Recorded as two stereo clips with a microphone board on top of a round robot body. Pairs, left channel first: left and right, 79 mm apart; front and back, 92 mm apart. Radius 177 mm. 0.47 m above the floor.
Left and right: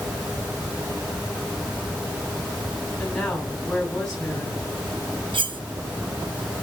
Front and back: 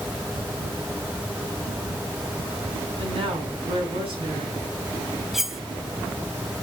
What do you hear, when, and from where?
3.0 s a woman speaking: 175° left, 4.5 m
5.3 s cutlery clinking: 95° right, 1.1 m